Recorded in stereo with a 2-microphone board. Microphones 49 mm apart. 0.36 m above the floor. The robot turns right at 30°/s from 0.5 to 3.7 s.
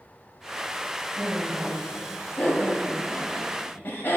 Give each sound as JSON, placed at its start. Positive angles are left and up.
{"t": 1.2, "sound": "laughter", "side_deg": 10, "distance_m": 1.5}